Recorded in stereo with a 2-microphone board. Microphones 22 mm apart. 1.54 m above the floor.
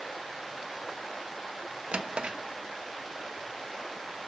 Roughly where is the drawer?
Right.